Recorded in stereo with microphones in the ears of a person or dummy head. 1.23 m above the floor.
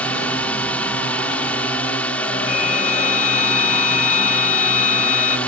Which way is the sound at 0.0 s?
10° left (ahead or behind).